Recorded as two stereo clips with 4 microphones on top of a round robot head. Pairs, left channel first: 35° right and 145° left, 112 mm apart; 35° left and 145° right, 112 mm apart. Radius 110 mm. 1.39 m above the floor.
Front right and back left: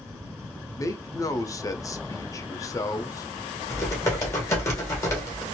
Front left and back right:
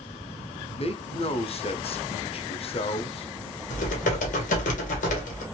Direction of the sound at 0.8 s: 20° left.